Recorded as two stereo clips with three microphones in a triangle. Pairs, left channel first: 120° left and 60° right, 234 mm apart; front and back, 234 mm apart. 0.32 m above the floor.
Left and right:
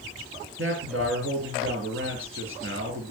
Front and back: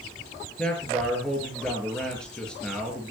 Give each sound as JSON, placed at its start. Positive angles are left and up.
{"t": 0.6, "sound": "a man speaking", "azimuth_deg": -85, "distance_m": 6.5}